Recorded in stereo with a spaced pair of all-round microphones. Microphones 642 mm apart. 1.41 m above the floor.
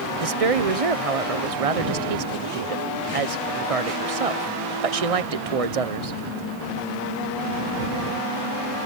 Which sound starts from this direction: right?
A woman speaking, at 0.2 s.